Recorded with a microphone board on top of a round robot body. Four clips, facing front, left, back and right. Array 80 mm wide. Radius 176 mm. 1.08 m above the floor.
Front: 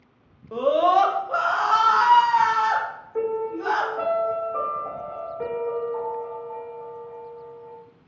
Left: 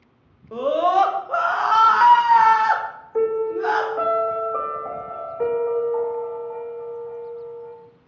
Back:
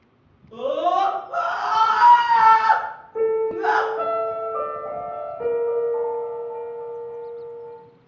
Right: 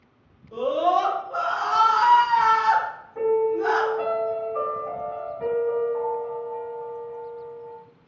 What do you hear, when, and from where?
0.5 s a scream: 50° left, 1.9 m; by 3.9 s 150° left, 2 m
3.1 s a piano: 85° left, 1.7 m